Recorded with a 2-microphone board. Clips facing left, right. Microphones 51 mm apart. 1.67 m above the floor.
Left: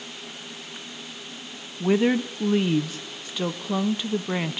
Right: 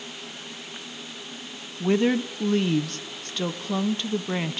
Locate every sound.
1.8 s a woman speaking: 10° left (ahead or behind), 0.8 m